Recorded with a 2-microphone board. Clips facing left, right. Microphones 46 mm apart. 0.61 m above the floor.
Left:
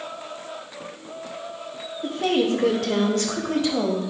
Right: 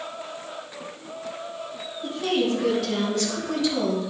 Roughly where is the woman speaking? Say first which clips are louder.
Left 2 dB; left.